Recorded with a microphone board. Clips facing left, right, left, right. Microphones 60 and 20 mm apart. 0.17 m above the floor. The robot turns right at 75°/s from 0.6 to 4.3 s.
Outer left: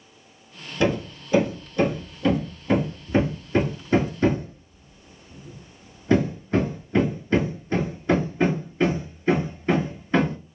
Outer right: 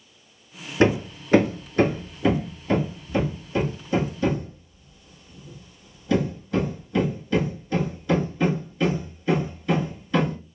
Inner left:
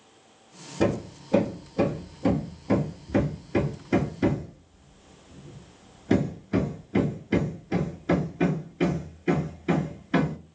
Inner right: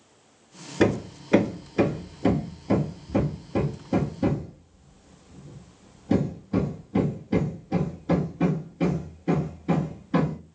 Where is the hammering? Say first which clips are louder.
Outer right 3 dB, inner right 3 dB; 45° right (ahead or behind), 1.1 m; by 10.4 s 40° left (ahead or behind), 1.1 m.